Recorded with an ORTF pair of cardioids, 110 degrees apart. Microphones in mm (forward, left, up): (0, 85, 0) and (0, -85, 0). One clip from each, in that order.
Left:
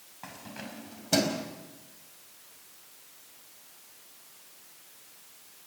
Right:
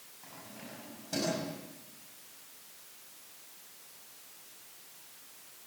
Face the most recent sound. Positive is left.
turn(degrees=70)